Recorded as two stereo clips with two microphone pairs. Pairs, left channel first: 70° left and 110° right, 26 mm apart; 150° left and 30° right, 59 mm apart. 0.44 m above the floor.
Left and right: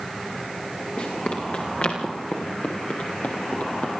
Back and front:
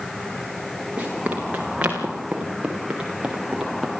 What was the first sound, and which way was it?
Running footsteps, 35° left.